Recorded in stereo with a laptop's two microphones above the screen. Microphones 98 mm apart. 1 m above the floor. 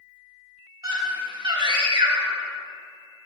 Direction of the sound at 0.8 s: 40° right (ahead or behind).